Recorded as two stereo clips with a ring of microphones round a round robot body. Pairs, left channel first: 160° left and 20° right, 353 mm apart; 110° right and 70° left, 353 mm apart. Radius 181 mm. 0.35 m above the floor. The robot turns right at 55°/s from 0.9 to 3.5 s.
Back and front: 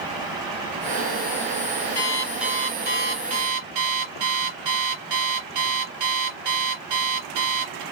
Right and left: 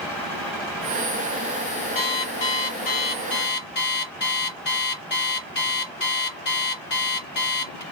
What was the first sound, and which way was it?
An alarm clock, 135° right.